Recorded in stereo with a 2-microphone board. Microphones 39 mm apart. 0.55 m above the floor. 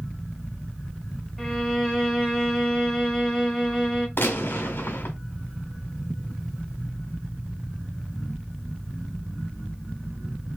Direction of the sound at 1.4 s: Centre (ahead or behind).